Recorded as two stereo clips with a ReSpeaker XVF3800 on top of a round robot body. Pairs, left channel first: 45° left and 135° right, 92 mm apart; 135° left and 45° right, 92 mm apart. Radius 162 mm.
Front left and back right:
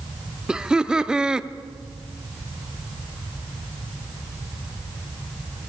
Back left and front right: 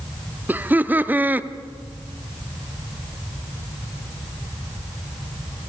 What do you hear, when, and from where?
0.5 s laughter: 70° right, 1.0 m